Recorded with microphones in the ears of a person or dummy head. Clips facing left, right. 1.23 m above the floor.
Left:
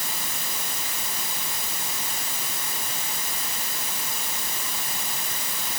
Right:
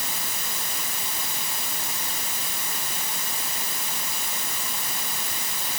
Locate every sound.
Only background noise.